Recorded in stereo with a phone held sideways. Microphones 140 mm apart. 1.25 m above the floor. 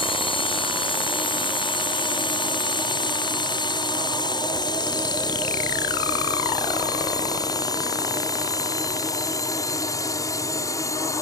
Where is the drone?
40° left (ahead or behind); by 11.2 s 20° left (ahead or behind).